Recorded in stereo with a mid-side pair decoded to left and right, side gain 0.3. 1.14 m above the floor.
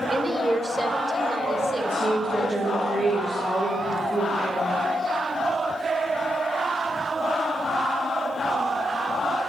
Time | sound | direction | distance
0.1 | a woman speaking | 30° right | 3 m
1.8 | a woman speaking | 55° right | 6 m